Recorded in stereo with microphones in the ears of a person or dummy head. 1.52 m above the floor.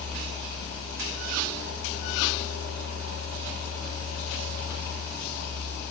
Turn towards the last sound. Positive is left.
turn(degrees=55)  # may be behind; listen again after turning